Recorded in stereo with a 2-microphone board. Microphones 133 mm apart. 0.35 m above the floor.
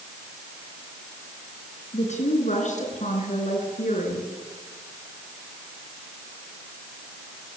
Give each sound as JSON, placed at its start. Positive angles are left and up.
{"t": 1.9, "sound": "a woman speaking", "side_deg": 60, "distance_m": 5.5}